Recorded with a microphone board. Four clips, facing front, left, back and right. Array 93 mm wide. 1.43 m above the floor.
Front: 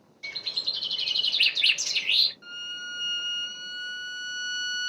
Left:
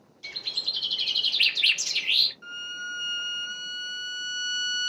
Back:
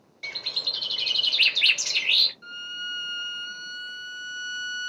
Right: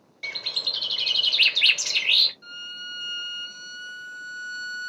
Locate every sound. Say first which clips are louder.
0.2 s a bird: right 5 dB, back 3 dB; 120° right, 0.8 m
2.4 s a violin: left 4 dB, back 2 dB; 80° left, 1.3 m